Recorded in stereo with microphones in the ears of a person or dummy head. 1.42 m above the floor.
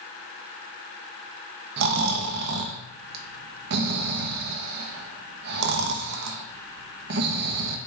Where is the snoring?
60° right (ahead or behind), 0.8 m.